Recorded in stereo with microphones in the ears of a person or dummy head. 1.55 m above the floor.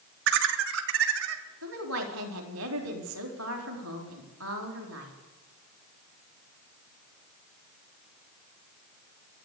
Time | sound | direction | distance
0.3 | laughter | 65° right (ahead or behind) | 2 m
1.6 | a woman speaking | 90° right | 4 m